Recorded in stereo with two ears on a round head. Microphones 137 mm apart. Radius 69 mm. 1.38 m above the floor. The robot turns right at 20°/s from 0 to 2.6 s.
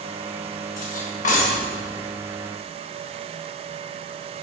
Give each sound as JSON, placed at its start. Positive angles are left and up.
{"t": 0.8, "sound": "cutlery clinking", "side_deg": 60, "distance_m": 1.3}